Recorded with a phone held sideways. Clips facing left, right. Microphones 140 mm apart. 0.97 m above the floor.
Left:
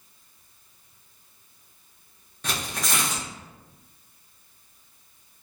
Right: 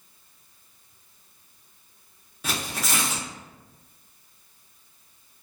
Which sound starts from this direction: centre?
Tearing paper, at 2.4 s.